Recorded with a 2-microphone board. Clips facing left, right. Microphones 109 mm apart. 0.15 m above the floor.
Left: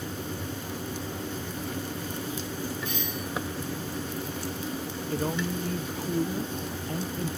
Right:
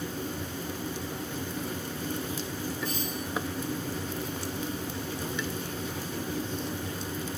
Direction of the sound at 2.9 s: 40° right (ahead or behind).